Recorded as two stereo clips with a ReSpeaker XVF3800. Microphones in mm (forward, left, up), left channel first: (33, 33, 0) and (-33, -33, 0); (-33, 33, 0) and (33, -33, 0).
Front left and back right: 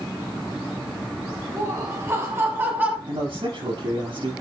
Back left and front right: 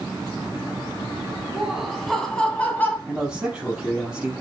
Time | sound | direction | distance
1.6 | laughter | 125° right | 1.4 m
3.1 | a man speaking | 125° right | 5.5 m